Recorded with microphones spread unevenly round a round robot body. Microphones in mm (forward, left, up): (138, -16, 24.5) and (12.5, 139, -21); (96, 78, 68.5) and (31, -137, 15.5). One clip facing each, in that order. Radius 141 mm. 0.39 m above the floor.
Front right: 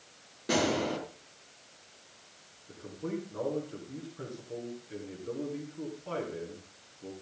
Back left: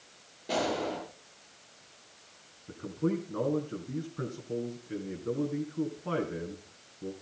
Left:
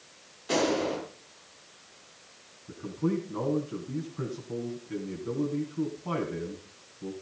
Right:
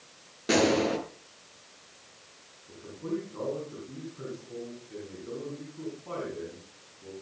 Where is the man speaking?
115° left, 4.5 m.